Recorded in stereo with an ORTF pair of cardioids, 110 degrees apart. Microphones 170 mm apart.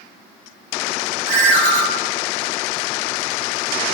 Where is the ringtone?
50° right, 0.8 m.